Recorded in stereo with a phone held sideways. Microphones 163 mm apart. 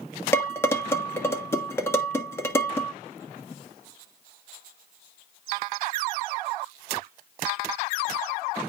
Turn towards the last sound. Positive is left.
turn(degrees=15)  # may be behind; listen again after turning